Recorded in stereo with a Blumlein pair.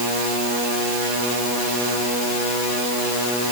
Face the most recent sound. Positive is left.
No sound to turn to.